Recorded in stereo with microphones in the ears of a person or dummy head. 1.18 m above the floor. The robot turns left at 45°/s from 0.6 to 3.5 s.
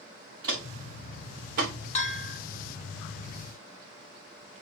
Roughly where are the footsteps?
Right.